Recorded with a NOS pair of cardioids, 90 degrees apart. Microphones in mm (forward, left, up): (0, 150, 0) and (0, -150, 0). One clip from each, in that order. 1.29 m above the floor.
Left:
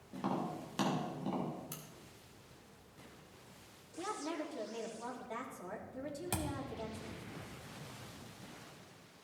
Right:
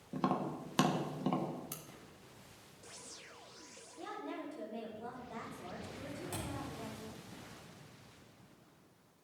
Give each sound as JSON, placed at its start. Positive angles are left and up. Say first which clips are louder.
{"t": 0.1, "sound": "tapping", "louder": "right 3 dB", "azimuth_deg": -45, "distance_m": 1.3}
{"t": 1.7, "sound": "a crack", "louder": "right 1 dB", "azimuth_deg": -20, "distance_m": 1.6}
{"t": 4.0, "sound": "a woman speaking", "louder": "left 3 dB", "azimuth_deg": 50, "distance_m": 2.5}
{"t": 6.3, "sound": "a thud", "louder": "left 4 dB", "azimuth_deg": 65, "distance_m": 1.7}